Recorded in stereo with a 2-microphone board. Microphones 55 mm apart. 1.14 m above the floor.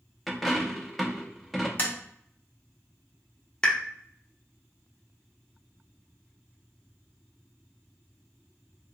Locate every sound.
0.3 s a dropped coin: centre (ahead or behind), 0.5 m
1.8 s tapping: 35° left (ahead or behind), 0.8 m
3.6 s a pop: 15° left (ahead or behind), 0.6 m